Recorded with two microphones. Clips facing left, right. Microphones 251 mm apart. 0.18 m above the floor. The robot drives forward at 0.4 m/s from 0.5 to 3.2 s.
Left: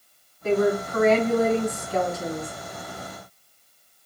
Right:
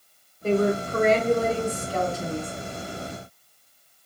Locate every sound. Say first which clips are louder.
0.4 s a woman speaking: left 1 dB; 30° right (ahead or behind), 1.5 m